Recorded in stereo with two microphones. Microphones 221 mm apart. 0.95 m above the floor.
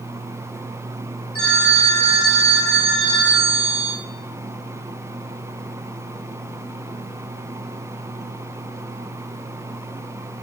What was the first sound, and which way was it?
A phone ringing, 80° left.